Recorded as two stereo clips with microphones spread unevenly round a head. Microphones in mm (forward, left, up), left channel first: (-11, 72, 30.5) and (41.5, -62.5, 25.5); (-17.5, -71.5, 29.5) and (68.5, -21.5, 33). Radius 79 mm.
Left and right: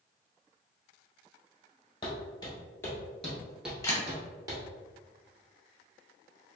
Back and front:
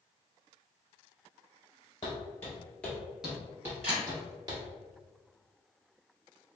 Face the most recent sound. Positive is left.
turn(degrees=50)